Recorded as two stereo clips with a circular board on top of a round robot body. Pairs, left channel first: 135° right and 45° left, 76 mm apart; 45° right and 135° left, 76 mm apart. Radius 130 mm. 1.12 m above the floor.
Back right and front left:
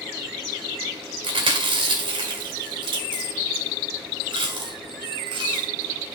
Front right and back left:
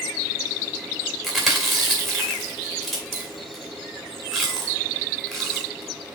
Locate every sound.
1.2 s chewing: 45° left, 1.4 m